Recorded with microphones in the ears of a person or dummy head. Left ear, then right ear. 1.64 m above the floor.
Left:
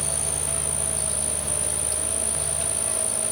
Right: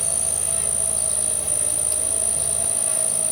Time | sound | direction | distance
0.0 | an insect | 5° right (ahead or behind) | ?